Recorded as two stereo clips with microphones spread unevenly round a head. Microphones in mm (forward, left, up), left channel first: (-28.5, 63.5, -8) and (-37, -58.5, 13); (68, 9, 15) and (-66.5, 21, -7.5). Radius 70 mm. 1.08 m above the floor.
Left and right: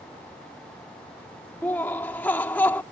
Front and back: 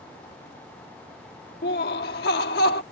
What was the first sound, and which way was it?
Laughter, 5° left.